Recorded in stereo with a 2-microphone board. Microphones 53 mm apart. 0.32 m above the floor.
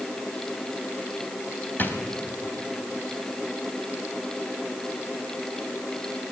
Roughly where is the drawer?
Left.